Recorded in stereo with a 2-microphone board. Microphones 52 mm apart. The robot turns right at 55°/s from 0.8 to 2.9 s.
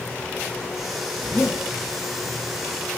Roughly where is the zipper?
Right.